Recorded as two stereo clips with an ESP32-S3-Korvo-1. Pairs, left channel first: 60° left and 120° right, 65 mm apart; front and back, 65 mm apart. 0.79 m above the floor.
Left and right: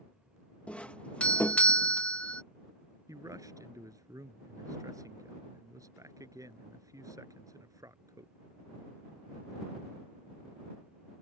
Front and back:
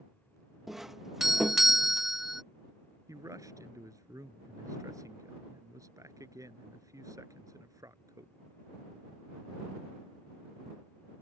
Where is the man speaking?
150° right.